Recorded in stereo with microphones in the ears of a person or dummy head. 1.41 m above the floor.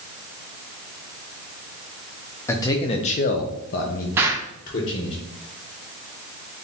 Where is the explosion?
15° right (ahead or behind), 0.5 m.